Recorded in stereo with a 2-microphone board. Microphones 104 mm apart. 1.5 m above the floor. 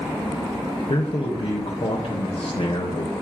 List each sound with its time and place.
0.9 s a man speaking: 75° left (ahead or behind), 0.8 m